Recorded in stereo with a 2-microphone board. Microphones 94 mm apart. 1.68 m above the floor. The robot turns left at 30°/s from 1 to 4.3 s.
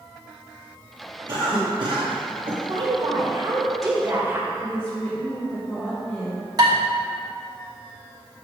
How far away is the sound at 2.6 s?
About 1.8 m.